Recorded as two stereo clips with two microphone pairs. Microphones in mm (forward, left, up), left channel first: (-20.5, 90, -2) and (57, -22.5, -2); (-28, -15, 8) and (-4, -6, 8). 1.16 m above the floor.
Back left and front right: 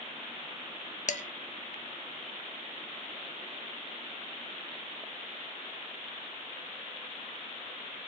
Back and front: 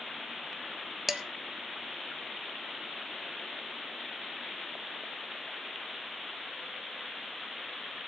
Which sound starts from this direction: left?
Dishes clattering, at 1.1 s.